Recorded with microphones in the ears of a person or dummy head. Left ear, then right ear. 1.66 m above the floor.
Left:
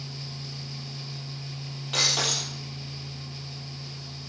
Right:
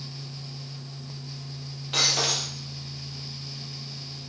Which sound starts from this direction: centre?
Breaking glass, at 1.9 s.